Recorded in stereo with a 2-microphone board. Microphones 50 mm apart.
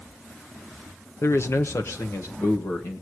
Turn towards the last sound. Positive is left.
turn(degrees=60)  # may be behind; listen again after turning